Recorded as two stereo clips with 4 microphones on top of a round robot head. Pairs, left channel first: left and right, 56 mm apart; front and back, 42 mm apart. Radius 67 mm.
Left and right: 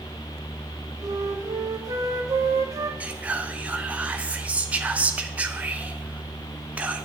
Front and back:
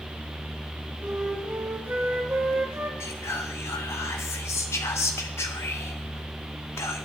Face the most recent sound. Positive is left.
turn(degrees=-25)